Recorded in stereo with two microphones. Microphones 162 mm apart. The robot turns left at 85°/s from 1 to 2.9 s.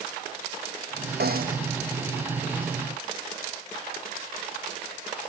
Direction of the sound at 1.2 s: 100° right.